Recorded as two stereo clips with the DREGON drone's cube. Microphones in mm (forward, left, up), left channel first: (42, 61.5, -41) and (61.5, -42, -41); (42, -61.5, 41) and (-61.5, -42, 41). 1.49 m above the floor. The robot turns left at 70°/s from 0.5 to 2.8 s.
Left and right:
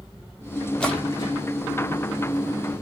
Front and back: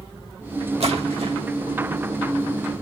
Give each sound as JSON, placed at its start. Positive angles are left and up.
{"t": 0.8, "sound": "a splash", "azimuth_deg": 180, "distance_m": 1.3}